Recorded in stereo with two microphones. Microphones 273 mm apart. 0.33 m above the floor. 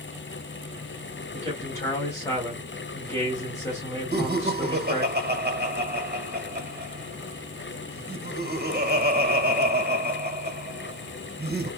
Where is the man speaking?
10° left (ahead or behind), 2 m.